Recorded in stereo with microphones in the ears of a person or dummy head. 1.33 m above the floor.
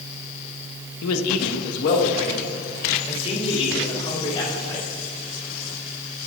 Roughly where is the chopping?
No chopping in this recording.